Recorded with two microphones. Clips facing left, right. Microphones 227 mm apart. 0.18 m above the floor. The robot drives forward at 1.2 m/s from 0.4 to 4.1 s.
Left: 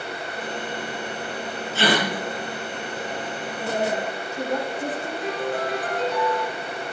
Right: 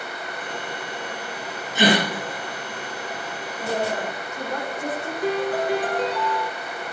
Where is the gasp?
15° right (ahead or behind), 3 m.